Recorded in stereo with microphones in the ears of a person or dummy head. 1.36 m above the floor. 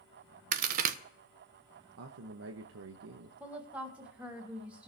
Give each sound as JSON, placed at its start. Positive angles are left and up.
{"t": 0.5, "sound": "a crack", "side_deg": -40, "distance_m": 0.9}
{"t": 2.0, "sound": "a man speaking", "side_deg": -75, "distance_m": 1.0}
{"t": 3.4, "sound": "a woman speaking", "side_deg": -10, "distance_m": 3.0}